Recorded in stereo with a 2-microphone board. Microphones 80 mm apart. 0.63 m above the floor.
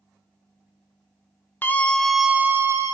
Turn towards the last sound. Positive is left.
turn(degrees=-40)  # may be behind; listen again after turning